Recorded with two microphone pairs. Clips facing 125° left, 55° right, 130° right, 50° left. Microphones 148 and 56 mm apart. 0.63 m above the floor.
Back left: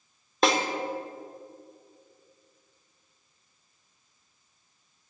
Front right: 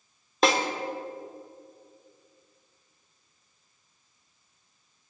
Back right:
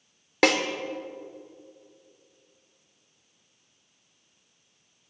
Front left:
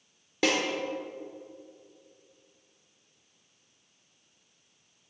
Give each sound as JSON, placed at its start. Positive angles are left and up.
{"t": 0.4, "sound": "a snare drum", "azimuth_deg": -145, "distance_m": 0.9}